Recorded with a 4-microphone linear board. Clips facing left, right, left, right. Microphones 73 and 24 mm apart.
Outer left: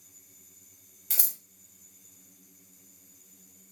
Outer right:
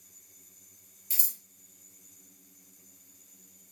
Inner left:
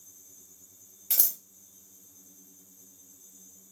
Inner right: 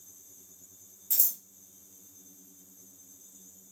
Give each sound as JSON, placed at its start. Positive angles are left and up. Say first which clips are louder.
{"t": 1.1, "sound": "scissors", "louder": "outer left 5 dB, inner left 2 dB", "side_deg": 70, "distance_m": 0.7}